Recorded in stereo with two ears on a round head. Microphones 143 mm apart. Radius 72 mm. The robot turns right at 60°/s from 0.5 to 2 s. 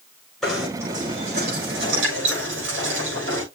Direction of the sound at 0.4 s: Straight behind.